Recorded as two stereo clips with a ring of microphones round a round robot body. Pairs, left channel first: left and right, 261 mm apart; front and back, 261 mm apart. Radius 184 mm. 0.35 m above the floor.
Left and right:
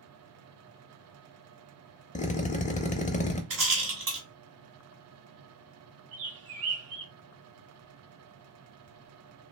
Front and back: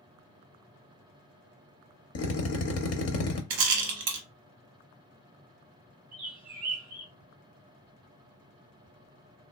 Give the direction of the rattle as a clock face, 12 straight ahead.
5 o'clock.